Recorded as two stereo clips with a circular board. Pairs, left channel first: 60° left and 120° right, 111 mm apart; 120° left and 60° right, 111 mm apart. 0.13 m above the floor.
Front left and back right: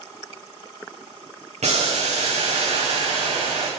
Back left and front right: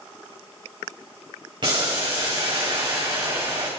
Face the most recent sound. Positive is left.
turn(degrees=-105)